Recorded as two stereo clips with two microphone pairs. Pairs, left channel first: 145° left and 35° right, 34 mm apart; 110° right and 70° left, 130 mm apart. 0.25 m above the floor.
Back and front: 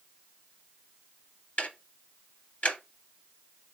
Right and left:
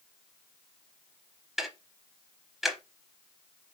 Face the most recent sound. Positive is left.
turn(degrees=155)